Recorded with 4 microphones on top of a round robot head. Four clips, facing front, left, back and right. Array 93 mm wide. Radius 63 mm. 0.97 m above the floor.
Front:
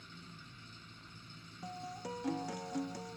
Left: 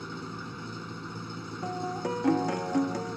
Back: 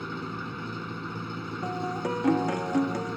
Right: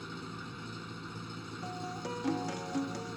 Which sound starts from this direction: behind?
An engine running, at 0.0 s.